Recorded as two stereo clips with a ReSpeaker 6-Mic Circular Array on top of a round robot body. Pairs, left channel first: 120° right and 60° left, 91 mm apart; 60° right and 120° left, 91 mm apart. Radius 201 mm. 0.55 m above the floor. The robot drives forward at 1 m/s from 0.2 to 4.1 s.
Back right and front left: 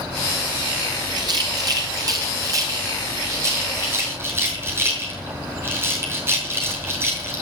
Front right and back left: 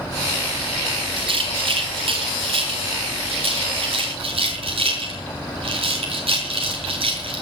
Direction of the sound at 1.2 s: 100° left.